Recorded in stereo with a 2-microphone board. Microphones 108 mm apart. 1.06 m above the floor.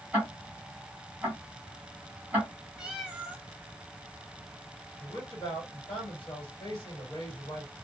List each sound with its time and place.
0.1 s ticking: 15° right (ahead or behind), 1.2 m
2.8 s a cat meowing: 10° right (ahead or behind), 0.8 m
5.0 s a man speaking: 50° left (ahead or behind), 1.9 m